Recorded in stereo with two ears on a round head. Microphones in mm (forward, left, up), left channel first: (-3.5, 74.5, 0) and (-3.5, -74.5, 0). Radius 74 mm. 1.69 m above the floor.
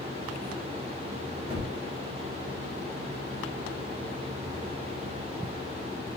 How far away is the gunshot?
About 2 m.